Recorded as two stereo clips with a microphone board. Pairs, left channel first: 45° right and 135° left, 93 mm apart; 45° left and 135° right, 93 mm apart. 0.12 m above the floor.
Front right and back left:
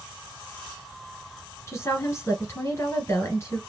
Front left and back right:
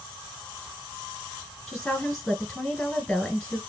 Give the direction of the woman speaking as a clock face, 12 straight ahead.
1 o'clock.